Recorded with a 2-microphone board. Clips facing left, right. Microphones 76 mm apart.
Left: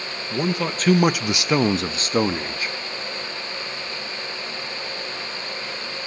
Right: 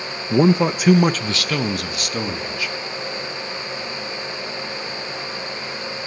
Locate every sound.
0.3 s a man speaking: 30° right (ahead or behind), 0.7 m; by 2.8 s 35° left (ahead or behind), 1.8 m